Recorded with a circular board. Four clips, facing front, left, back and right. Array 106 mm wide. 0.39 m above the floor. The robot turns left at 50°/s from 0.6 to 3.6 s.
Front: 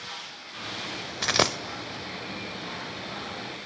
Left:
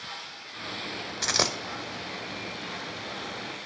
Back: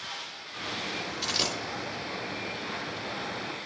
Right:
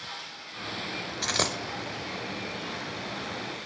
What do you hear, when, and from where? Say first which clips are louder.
1.2 s a dropped coin: left 1 dB, front 10 dB; 20° left, 0.6 m; by 1.6 s straight ahead, 0.6 m